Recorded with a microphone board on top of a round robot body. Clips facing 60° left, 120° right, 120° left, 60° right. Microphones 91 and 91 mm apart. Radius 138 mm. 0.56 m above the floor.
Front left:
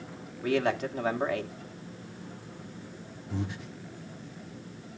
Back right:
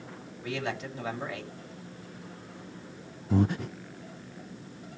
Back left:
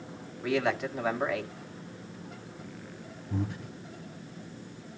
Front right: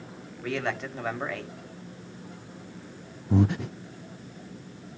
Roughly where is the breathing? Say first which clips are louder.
Back right 10 dB, front right 11 dB; right.